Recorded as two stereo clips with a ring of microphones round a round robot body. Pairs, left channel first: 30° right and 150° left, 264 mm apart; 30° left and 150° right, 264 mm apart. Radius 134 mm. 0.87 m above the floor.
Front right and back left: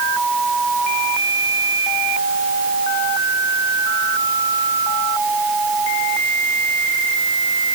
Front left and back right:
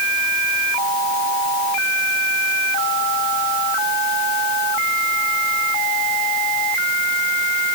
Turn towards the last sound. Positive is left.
No sound to turn to.